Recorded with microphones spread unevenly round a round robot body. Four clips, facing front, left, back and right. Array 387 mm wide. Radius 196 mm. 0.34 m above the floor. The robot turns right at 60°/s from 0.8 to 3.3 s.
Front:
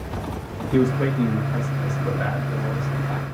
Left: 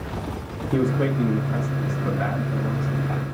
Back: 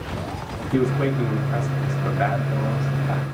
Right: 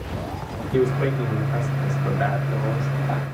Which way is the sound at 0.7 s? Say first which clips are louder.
Right 1 dB, front 1 dB; 100° left.